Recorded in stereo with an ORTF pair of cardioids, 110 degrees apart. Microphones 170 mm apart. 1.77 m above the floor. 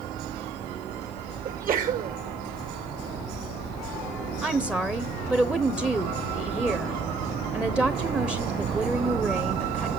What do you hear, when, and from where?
1.4 s a sneeze: 50° right, 2.5 m
4.4 s a woman speaking: 5° right, 1.0 m